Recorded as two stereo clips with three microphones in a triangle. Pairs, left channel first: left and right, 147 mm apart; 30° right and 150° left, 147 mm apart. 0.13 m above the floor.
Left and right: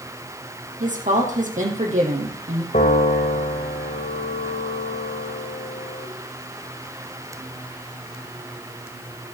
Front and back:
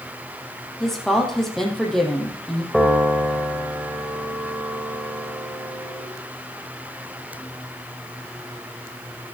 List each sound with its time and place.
0.8 s a woman speaking: 115° right, 4 m
2.7 s a piano: 65° left, 4 m